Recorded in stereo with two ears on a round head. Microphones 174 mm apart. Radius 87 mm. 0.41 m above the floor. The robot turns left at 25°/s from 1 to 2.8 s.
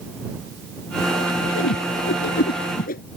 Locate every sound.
1.6 s a whoosh: 75° left (ahead or behind); by 3.0 s 45° left (ahead or behind)